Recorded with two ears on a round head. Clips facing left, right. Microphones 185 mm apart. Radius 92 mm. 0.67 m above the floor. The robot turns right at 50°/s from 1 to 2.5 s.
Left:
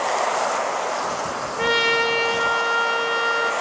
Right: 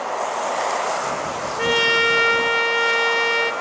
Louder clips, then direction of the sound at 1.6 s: Right 1 dB; centre (ahead or behind).